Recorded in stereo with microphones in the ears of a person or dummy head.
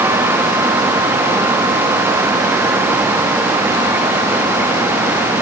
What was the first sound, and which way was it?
Only background noise.